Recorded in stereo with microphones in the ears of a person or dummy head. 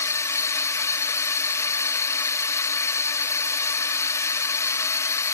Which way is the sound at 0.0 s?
15° left (ahead or behind).